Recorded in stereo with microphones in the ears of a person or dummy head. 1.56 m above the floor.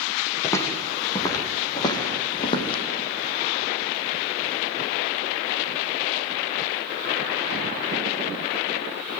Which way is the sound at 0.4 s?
15° left (ahead or behind).